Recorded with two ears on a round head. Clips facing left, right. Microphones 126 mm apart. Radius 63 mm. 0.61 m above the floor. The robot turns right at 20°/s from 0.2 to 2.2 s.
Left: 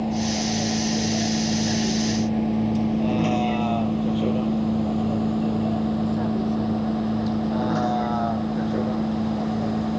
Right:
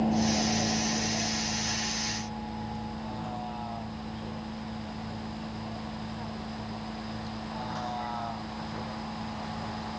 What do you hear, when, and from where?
0.0 s a vehicle: 5° left (ahead or behind); by 10.0 s 60° left (ahead or behind)